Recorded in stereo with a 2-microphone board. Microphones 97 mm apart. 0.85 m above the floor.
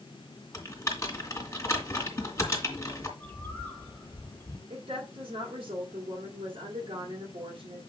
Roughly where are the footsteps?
I don't hear footsteps.